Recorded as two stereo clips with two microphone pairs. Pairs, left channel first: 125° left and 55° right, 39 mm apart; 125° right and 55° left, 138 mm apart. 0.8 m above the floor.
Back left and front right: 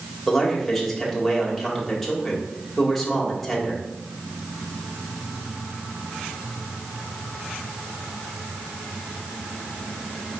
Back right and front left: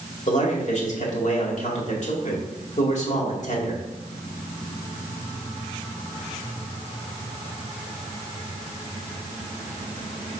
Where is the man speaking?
145° right, 1.9 m.